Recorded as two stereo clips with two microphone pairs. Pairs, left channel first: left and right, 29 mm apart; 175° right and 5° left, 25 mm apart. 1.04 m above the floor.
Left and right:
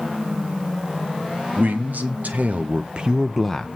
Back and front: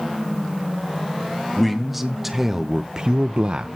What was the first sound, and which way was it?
A man speaking, 80° right.